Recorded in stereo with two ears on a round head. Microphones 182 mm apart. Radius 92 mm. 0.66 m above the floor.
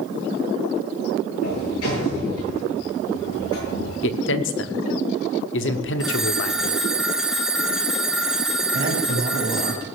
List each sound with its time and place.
1.4 s a sliding door: 75° left (ahead or behind), 8.5 m
4.0 s a man speaking: 65° left (ahead or behind), 1.3 m
6.0 s a phone ringing: 5° right (ahead or behind), 1.9 m
8.7 s a man speaking: 40° right (ahead or behind), 6.5 m